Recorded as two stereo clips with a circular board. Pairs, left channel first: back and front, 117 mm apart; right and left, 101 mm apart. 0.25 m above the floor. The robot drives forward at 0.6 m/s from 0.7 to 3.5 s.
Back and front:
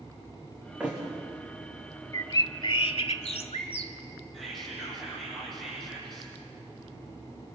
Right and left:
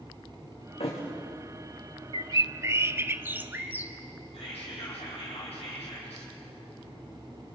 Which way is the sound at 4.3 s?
85° right.